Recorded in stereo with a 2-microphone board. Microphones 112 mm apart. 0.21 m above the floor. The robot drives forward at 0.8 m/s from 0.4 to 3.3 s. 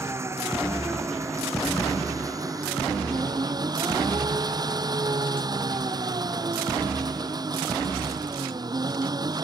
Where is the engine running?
25° right (ahead or behind); by 9.4 s 35° right (ahead or behind).